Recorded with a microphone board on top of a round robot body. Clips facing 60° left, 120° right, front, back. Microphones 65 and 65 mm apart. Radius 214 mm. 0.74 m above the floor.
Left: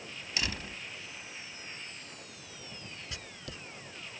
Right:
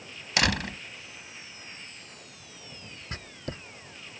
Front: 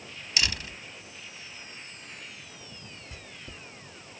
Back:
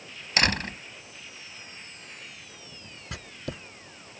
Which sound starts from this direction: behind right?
A door slam, at 0.4 s.